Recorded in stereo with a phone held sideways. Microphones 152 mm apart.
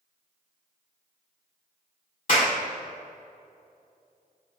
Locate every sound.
2.3 s a clap: 60° left (ahead or behind), 2.5 m